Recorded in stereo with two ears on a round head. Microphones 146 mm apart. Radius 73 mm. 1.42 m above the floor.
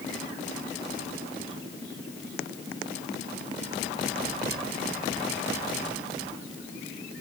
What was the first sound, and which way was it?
Only background noise.